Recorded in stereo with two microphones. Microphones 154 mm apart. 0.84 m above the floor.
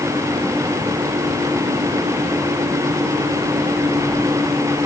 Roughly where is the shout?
No shout in this recording.